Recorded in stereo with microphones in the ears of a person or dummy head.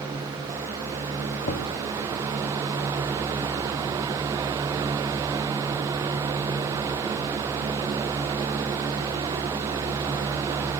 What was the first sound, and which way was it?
Knocking, 60° left (ahead or behind).